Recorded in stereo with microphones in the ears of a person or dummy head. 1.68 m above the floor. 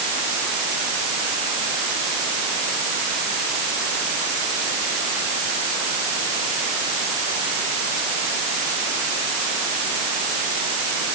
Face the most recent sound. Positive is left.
No sound to turn to.